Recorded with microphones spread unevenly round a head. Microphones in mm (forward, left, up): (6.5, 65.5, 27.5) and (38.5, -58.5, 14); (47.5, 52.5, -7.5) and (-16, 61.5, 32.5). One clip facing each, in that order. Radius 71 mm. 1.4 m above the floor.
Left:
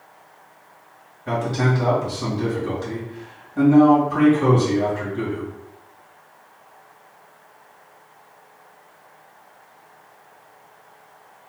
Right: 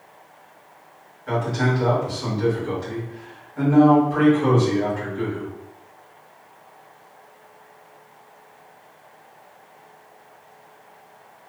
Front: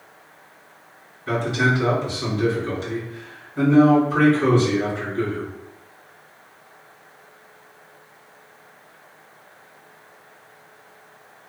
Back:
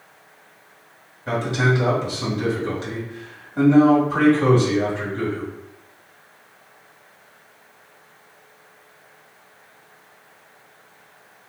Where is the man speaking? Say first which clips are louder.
Left 1 dB, even; 145° left, 1.9 m.